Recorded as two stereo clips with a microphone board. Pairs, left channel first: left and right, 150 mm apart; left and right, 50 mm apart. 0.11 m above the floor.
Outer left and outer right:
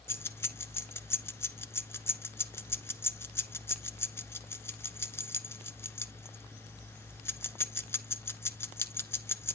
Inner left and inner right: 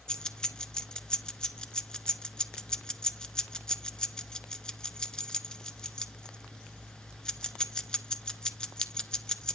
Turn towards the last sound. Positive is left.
turn(degrees=15)  # may be behind; listen again after turning